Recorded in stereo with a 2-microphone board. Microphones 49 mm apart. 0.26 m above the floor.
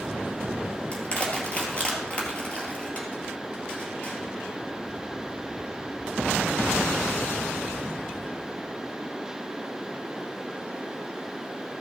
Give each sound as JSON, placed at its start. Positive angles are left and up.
{"t": 0.9, "sound": "crushing", "side_deg": 25, "distance_m": 2.0}